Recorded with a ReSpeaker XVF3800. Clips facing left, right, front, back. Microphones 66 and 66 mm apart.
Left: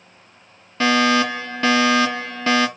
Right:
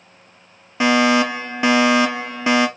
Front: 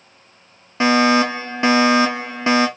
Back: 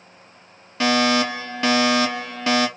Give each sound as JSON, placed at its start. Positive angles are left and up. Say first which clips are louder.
{"t": 0.8, "sound": "a fire alarm", "louder": "right 2 dB, front 4 dB", "azimuth_deg": -30, "distance_m": 1.6}